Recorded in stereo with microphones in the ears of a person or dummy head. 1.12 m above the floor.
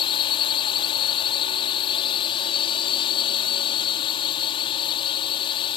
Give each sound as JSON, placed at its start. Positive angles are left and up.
{"t": 0.0, "sound": "a drone", "side_deg": 30}